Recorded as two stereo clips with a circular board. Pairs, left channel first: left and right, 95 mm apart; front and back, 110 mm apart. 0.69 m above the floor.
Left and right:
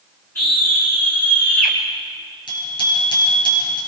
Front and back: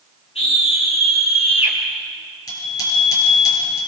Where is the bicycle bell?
55° left, 9.5 m.